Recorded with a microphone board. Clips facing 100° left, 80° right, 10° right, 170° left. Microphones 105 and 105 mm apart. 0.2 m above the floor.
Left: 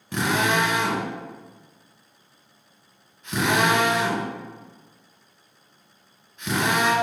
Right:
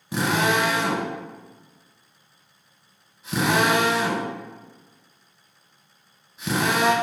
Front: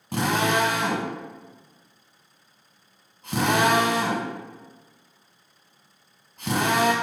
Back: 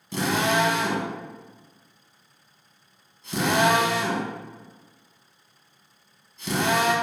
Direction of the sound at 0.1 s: Straight ahead.